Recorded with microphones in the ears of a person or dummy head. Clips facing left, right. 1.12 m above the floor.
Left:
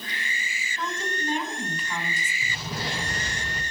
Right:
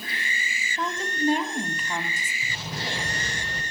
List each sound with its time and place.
0.8 s a woman speaking: 40° right (ahead or behind), 2 m
2.4 s an explosion: 75° left (ahead or behind), 4.5 m